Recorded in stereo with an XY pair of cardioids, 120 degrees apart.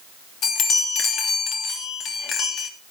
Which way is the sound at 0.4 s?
55° left.